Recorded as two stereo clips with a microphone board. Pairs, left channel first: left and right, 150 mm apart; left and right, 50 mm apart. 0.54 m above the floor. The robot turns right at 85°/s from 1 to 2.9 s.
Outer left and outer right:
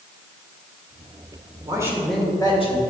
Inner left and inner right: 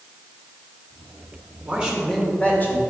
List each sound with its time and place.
1.7 s a man speaking: 35° right, 2 m; by 2.8 s 60° left, 2 m